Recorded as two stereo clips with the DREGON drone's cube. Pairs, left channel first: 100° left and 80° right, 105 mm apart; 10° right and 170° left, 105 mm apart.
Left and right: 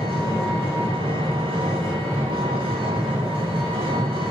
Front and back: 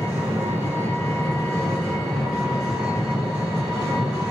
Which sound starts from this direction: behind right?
An engine running, at 0.0 s.